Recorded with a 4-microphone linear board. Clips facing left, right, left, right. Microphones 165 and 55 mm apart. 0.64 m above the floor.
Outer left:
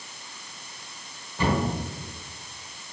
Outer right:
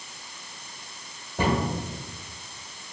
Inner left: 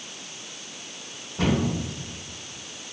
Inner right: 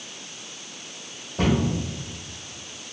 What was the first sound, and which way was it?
A cupboard door, 60° right (ahead or behind).